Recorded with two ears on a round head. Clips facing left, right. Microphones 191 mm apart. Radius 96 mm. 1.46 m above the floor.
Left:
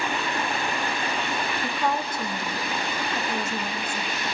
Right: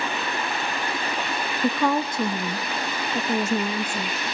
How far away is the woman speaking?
About 0.5 m.